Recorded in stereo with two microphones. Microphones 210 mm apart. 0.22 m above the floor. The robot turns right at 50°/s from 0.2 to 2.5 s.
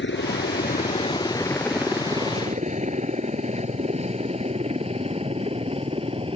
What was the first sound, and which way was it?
A helicopter, 60° left (ahead or behind).